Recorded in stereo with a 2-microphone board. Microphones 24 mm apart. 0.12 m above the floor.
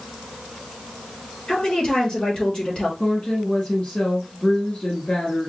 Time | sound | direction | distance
1.5 | a woman speaking | 40° left (ahead or behind) | 3 m
3.0 | a woman speaking | 50° left (ahead or behind) | 1.6 m